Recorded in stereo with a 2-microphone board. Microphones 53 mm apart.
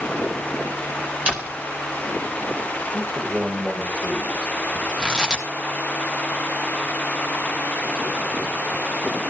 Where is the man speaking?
25° right (ahead or behind), 6 m.